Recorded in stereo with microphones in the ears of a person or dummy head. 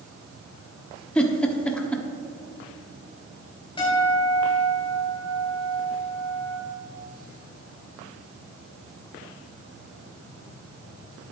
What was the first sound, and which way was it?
A giggle, 5° left (ahead or behind).